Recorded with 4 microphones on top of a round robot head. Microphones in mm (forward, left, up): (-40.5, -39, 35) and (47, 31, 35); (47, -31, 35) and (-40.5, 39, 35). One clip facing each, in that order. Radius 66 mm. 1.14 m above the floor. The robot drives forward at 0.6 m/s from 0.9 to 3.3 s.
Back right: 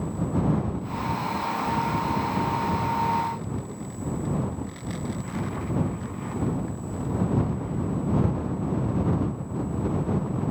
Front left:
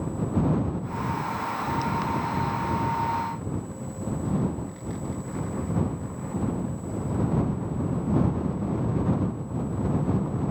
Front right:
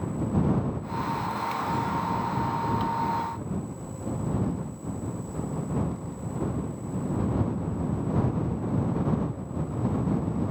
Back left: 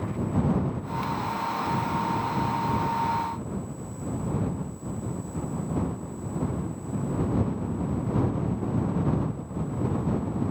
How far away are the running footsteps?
I don't hear running footsteps.